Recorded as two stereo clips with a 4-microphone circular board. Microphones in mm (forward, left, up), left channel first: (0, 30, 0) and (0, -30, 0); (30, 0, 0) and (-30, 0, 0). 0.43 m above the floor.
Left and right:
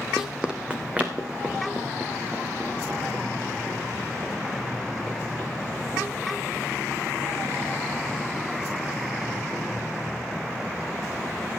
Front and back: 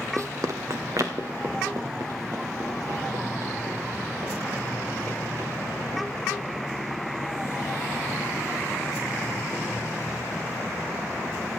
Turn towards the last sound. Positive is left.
turn(degrees=-150)